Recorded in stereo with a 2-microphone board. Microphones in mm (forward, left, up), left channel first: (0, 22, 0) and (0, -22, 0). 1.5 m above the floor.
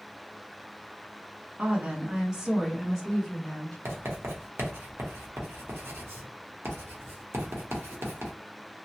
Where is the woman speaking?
30° right (ahead or behind), 0.9 m; by 3.8 s 5° left (ahead or behind), 1.6 m.